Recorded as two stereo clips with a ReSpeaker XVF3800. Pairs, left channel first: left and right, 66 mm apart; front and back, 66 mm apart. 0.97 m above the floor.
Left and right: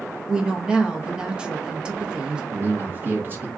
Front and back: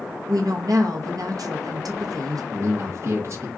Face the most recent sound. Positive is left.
turn(degrees=-140)